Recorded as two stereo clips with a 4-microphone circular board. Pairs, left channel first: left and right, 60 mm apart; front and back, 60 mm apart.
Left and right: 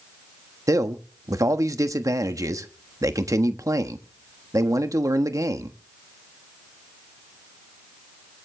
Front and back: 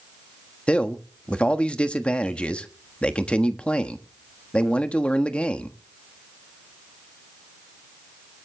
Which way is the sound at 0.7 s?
70° right.